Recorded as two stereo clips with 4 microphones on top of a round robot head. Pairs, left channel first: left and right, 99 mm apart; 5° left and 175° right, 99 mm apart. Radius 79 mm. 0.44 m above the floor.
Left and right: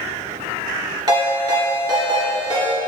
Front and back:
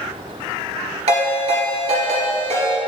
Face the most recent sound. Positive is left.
turn(degrees=-145)